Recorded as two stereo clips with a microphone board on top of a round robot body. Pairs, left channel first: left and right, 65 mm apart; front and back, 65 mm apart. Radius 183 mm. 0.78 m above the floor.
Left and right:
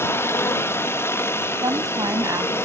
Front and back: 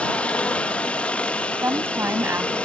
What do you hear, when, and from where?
0.0 s a helicopter: 60° left
1.6 s a woman speaking: 125° right